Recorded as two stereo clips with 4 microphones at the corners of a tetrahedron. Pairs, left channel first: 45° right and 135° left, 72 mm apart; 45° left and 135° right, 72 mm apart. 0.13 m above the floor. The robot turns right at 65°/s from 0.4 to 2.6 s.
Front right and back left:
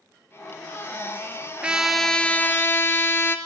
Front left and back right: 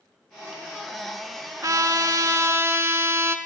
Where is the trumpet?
155° right, 0.6 m; by 3.4 s 90° right, 0.6 m.